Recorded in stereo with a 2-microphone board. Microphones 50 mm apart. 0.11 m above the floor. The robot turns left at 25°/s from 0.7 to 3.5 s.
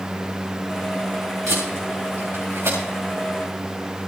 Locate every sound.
1.5 s tape being pulled: 75° right (ahead or behind), 9.5 m; by 2.8 s 65° right (ahead or behind), 9.5 m